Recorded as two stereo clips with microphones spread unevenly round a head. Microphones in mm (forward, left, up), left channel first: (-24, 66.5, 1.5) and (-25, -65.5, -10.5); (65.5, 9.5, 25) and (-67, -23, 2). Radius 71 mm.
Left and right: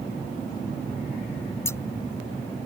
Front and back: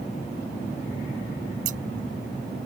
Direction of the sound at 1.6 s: 160° left.